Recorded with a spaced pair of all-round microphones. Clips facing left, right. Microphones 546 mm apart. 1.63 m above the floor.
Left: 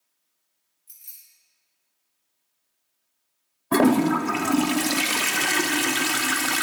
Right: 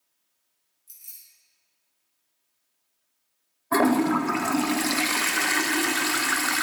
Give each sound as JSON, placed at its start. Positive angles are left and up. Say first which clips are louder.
{"t": 0.9, "sound": "keys jangling", "louder": "left 1 dB", "side_deg": 75, "distance_m": 3.0}
{"t": 3.7, "sound": "a toilet flushing", "louder": "left 3 dB", "side_deg": 55, "distance_m": 0.6}